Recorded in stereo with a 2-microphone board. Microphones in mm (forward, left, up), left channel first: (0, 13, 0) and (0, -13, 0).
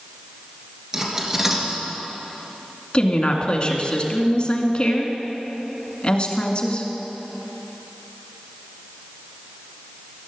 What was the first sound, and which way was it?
Cutlery clinking, 20° right (ahead or behind).